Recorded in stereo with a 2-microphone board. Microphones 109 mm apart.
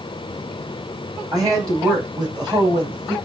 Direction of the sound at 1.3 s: 35° right (ahead or behind).